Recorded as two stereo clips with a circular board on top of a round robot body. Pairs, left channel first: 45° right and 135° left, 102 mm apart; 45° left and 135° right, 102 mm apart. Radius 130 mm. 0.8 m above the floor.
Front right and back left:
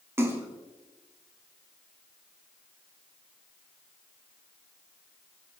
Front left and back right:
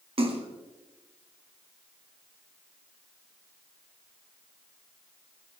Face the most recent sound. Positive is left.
turn(degrees=-160)